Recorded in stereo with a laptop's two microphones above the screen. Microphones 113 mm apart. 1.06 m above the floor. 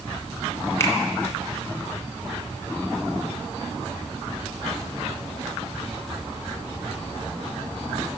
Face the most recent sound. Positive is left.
turn(degrees=25)  # may be behind; listen again after turning